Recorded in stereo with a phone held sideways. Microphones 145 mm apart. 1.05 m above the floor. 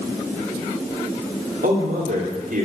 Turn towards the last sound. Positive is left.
turn(degrees=-85)